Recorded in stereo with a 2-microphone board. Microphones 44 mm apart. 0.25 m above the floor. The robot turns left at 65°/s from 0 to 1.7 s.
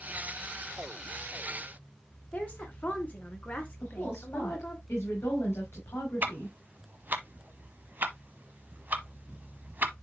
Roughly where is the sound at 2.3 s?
Left.